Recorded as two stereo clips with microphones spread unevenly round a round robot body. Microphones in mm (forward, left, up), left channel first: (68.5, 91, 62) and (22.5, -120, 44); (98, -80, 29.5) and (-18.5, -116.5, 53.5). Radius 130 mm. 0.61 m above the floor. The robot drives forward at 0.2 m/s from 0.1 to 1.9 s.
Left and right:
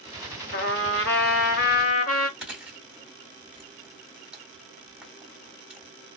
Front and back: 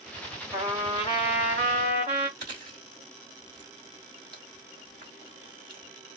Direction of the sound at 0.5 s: 125° left.